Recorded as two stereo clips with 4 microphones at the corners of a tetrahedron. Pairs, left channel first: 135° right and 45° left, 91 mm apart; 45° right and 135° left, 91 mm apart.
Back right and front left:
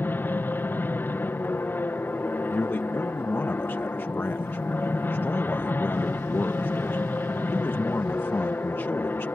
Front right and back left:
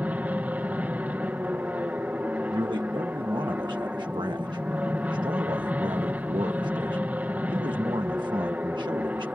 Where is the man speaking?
160° left.